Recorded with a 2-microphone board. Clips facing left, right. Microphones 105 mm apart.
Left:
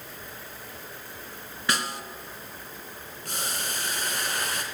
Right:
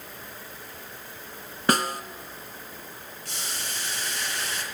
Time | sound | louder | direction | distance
1.7 | a snare drum | right 6 dB | 45° right (ahead or behind) | 0.6 m
3.2 | boiling | left 4 dB | 50° left (ahead or behind) | 2.0 m